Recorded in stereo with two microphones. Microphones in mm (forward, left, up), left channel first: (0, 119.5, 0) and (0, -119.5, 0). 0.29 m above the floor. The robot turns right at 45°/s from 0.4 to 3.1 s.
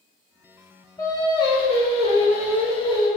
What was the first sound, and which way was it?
Singing, 15° left (ahead or behind).